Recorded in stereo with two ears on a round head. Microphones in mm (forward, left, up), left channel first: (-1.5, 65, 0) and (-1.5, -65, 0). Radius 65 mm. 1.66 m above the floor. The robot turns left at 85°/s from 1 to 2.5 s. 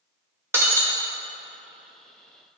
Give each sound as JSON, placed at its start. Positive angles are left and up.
{"t": 0.5, "sound": "breaking glass", "side_deg": -15, "distance_m": 0.8}